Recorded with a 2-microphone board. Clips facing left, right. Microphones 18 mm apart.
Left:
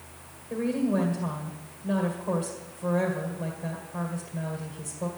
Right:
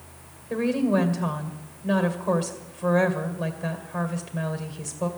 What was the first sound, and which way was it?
A woman speaking, 45° right (ahead or behind).